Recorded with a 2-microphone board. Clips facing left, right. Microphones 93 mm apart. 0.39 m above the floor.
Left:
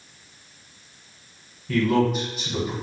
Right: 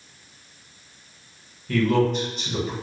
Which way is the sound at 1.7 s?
5° left (ahead or behind).